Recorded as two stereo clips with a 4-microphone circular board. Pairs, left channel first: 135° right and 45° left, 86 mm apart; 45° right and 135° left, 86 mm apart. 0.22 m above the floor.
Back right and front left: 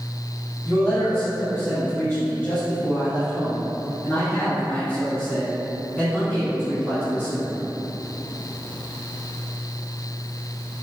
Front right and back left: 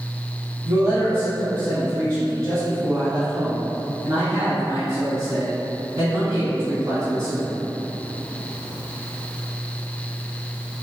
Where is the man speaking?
165° left, 1.8 m.